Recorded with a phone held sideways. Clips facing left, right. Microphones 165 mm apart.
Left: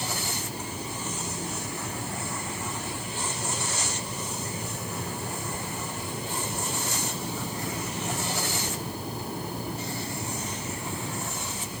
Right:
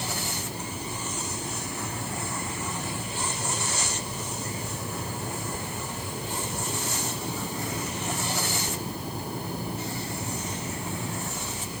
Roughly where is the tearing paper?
I don't hear tearing paper.